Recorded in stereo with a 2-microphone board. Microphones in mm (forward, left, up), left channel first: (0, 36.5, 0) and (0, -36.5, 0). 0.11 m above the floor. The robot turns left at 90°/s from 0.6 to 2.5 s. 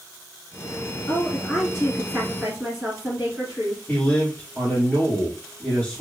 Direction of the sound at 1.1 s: 25° left (ahead or behind).